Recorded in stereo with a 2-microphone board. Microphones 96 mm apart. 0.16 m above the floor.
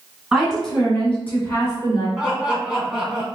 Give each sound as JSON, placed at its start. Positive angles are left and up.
{"t": 0.3, "sound": "a woman speaking", "side_deg": -5, "distance_m": 2.0}
{"t": 2.2, "sound": "laughter", "side_deg": -10, "distance_m": 1.1}